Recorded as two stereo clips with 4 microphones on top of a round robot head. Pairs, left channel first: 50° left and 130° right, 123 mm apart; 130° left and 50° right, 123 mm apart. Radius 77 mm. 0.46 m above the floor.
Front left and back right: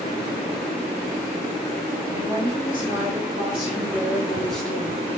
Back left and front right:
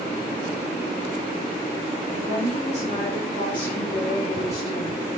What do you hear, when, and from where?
2.1 s a woman speaking: 170° left, 2.0 m; by 5.0 s 80° left, 1.1 m